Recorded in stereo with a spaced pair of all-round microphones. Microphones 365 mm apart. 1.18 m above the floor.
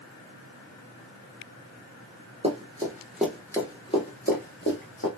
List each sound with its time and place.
2.4 s running footsteps: 20° right (ahead or behind), 1.3 m; by 5.1 s 35° left (ahead or behind), 1.6 m